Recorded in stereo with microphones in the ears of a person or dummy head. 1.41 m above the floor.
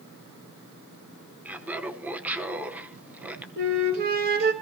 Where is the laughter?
10° right (ahead or behind), 1.0 m.